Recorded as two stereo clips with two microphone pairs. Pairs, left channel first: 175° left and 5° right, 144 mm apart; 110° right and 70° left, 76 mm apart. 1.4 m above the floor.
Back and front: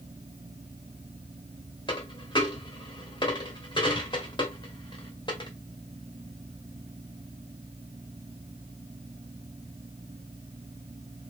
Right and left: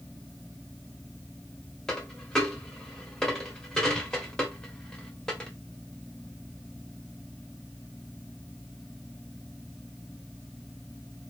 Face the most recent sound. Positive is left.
turn(degrees=180)